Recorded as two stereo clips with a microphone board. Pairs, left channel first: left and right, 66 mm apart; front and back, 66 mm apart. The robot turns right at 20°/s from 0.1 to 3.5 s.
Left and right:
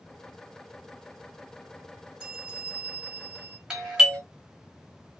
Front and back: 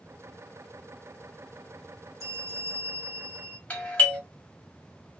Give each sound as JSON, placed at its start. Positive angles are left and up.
{"t": 2.2, "sound": "a bell", "azimuth_deg": -155, "distance_m": 1.1}
{"t": 3.7, "sound": "a doorbell", "azimuth_deg": -20, "distance_m": 1.1}